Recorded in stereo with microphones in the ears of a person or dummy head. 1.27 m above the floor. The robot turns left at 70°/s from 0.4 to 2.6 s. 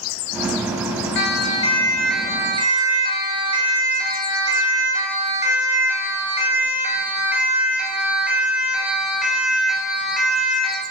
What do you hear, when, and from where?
1.1 s a siren: 65° left (ahead or behind), 9 m; by 10.8 s centre (ahead or behind), 10.5 m